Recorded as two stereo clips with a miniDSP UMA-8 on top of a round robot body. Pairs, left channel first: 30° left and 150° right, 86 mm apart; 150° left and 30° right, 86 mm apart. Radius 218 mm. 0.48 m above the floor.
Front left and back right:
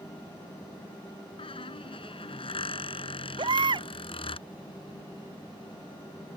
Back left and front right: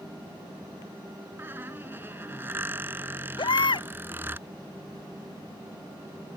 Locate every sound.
1.4 s a squeak: 35° left
3.4 s a baby crying: straight behind